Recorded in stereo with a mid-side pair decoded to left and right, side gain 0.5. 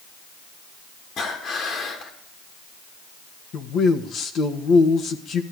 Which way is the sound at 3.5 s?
65° left.